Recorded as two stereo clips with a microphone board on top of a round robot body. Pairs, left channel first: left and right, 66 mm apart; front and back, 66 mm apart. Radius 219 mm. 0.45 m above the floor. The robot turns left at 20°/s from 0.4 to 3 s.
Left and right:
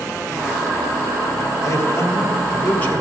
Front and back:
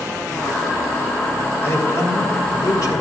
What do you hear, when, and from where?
1.6 s a man speaking: 50° left, 2.5 m; by 3.0 s 20° left, 2.5 m